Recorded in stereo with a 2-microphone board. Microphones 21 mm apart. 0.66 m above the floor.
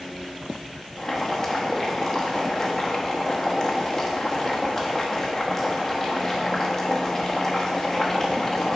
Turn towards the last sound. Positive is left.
turn(degrees=20)  # may be behind; listen again after turning